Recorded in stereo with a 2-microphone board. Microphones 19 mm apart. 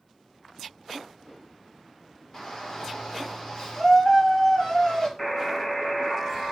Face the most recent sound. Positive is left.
turn(degrees=15)  # may be behind; listen again after turning